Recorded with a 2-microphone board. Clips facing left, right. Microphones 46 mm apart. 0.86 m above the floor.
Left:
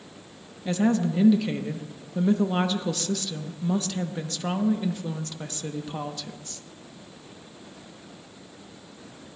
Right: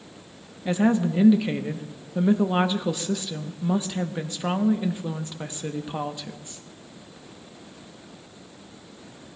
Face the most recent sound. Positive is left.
turn(degrees=-20)  # may be behind; listen again after turning